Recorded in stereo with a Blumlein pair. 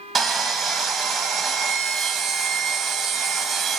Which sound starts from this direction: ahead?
Sawing, at 0.1 s.